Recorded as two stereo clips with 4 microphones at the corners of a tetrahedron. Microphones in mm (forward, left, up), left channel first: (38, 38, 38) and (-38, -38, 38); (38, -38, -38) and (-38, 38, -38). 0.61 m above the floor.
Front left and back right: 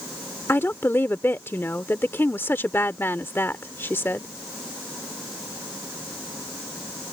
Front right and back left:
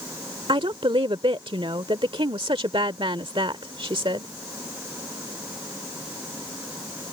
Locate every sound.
0.5 s a woman speaking: 110° left